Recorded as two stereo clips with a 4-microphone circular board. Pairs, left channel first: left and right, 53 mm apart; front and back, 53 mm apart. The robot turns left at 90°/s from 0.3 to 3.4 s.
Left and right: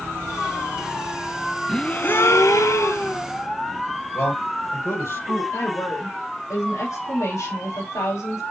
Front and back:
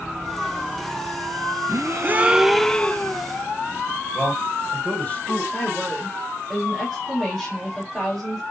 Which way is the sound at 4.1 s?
70° left.